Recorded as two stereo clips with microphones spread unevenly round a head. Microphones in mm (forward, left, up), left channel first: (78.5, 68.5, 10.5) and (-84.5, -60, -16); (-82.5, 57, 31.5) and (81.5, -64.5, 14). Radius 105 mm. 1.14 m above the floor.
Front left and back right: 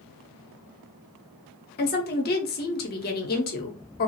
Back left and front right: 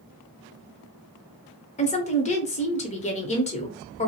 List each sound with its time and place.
1.8 s a woman speaking: 85° left, 0.8 m